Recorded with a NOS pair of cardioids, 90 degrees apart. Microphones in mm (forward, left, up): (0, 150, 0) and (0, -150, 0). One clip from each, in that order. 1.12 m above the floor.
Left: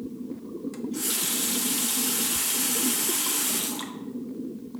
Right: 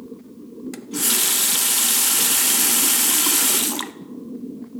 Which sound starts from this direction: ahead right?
A running tap, at 0.7 s.